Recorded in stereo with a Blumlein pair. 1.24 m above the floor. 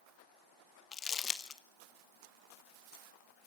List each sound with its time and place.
0.9 s crumpling: 20° left, 1.5 m